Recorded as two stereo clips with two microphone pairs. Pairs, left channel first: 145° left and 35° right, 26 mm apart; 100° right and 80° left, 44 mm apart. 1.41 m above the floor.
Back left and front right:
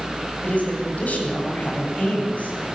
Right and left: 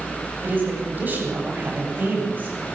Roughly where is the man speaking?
Behind left.